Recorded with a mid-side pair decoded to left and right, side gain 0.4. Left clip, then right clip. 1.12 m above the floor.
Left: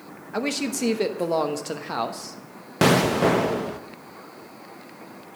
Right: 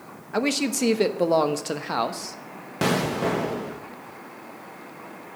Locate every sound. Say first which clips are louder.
0.3 s a man speaking: right 2 dB; 20° right, 1.0 m
2.8 s an explosion: left 5 dB; 45° left, 0.7 m